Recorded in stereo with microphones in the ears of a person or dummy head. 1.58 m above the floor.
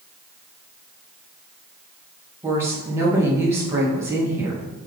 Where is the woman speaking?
15° right (ahead or behind), 2 m.